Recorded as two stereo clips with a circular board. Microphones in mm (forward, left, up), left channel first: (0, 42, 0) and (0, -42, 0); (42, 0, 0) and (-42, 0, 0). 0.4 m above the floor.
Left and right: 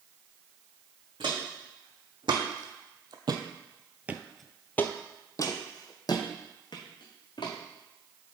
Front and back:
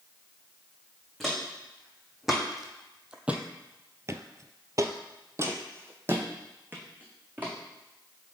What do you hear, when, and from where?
1.2 s footsteps: 90° right, 1.7 m; by 7.5 s 110° left, 1.8 m